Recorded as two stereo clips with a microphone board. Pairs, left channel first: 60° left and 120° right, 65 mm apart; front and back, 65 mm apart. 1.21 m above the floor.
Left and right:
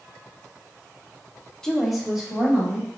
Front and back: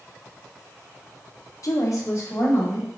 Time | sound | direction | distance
1.6 | a woman speaking | 20° right | 0.7 m